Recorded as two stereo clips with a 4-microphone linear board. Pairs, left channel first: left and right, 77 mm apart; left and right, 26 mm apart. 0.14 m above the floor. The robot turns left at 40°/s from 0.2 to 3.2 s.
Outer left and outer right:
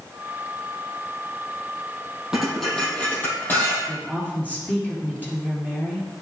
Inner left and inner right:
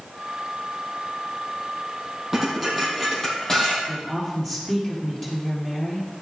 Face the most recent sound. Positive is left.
turn(degrees=20)  # may be behind; listen again after turning